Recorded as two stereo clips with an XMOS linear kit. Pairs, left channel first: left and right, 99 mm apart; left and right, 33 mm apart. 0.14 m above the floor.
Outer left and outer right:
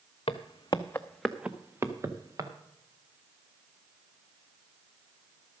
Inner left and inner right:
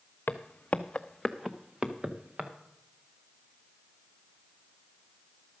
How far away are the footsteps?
About 1.0 m.